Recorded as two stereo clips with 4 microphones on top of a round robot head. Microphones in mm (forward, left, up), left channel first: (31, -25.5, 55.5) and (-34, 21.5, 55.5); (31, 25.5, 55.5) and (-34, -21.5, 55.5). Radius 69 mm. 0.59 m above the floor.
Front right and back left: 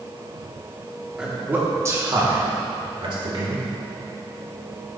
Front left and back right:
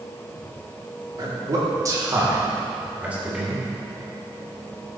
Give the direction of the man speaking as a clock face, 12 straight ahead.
5 o'clock.